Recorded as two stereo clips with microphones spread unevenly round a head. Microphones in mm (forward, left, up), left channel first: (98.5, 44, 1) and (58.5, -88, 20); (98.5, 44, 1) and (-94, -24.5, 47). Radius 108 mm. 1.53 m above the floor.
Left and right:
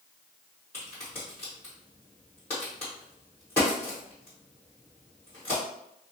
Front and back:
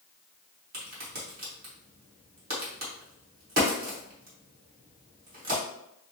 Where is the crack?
155° left, 1.7 m.